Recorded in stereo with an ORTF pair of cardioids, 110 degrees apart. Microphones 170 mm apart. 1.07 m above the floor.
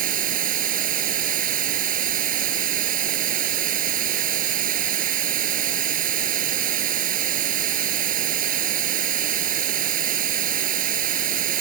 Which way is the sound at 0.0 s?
55° right.